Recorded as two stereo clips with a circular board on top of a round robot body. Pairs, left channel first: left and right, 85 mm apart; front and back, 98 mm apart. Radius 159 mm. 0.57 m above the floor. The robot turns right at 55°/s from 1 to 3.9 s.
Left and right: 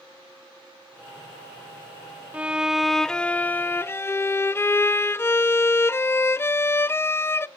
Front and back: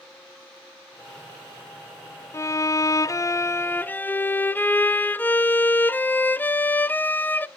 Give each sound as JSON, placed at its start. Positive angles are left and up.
{"t": 2.3, "sound": "a violin", "azimuth_deg": -30, "distance_m": 0.6}